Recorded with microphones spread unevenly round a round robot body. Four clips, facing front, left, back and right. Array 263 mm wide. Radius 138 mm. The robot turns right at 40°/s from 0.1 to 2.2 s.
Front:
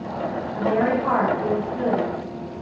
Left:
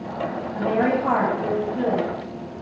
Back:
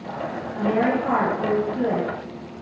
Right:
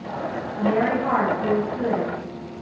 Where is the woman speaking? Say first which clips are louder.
Even, even; 85° left, 1.1 m; by 2.5 s 150° left, 1.1 m.